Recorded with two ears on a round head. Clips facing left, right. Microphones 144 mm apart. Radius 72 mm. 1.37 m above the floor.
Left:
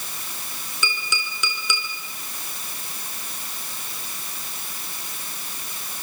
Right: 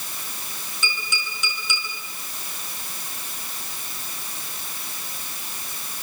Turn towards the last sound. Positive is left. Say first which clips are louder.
# left 2 dB
turn(degrees=60)  # may be behind; listen again after turning